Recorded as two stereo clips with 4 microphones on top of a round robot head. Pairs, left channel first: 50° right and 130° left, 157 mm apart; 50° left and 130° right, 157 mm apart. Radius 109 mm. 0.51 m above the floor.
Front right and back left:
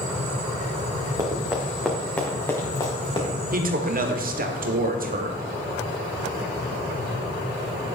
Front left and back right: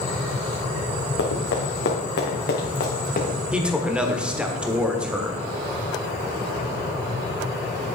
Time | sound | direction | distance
1.2 | running footsteps | 60° left | 2.5 m
3.5 | a man speaking | 145° left | 1.4 m